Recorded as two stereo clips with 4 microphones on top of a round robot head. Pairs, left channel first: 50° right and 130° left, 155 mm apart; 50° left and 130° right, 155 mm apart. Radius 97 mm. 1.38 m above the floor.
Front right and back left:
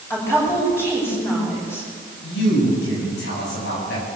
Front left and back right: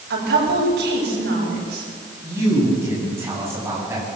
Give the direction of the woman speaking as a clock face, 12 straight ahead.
4 o'clock.